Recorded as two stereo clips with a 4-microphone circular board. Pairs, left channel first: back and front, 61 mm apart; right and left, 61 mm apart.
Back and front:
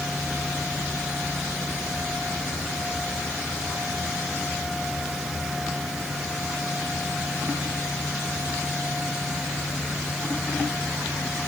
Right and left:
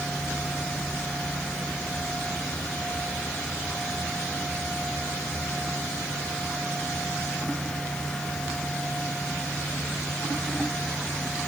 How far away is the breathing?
I don't hear breathing.